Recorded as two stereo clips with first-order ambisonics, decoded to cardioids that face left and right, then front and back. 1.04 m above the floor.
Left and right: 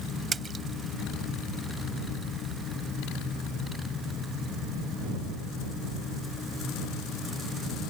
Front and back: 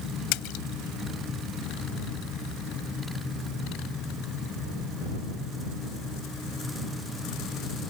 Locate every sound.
0.3 s a splash: 20° right